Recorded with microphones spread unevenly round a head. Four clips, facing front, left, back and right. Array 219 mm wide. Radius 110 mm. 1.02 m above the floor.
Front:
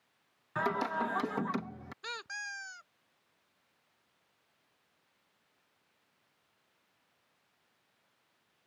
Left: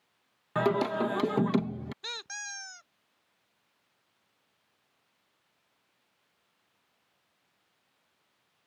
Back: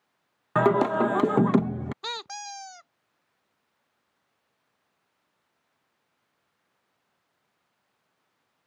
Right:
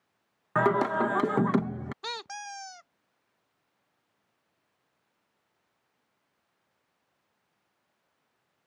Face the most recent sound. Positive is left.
turn(degrees=-140)